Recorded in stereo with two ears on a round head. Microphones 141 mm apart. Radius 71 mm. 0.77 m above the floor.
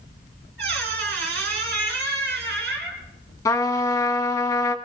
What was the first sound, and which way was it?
A squeak, 75° right (ahead or behind).